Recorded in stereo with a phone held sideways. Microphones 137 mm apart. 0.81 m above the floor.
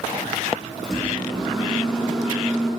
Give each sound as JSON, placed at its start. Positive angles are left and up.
{"t": 0.8, "sound": "a microwave", "side_deg": -5, "distance_m": 7.5}